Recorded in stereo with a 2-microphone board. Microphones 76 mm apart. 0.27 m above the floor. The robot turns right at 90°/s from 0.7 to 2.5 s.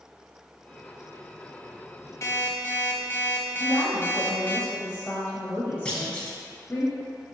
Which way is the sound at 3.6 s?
25° left (ahead or behind).